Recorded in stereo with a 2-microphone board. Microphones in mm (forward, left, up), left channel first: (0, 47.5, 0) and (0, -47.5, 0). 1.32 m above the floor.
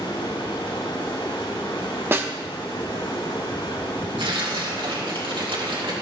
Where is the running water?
75° left (ahead or behind), 5 m.